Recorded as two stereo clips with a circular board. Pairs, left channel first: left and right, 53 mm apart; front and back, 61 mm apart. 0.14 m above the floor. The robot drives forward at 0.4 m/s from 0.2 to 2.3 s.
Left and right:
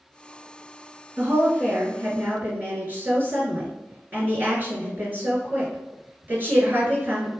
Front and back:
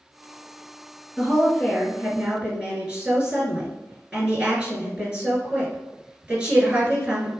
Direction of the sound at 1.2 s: 100° right.